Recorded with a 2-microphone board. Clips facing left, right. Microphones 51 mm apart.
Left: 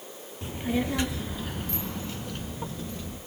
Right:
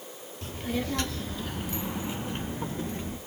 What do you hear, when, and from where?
0.4 s a child speaking: 20° left (ahead or behind), 1.5 m; by 3.2 s 35° right (ahead or behind), 1.3 m